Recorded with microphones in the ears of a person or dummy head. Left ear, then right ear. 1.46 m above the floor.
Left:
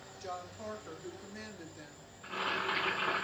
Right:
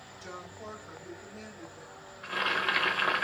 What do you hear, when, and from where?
0.2 s a woman speaking: 50° left (ahead or behind), 1.7 m; by 2.1 s 35° left (ahead or behind), 0.8 m
2.2 s boiling: 40° right (ahead or behind), 0.8 m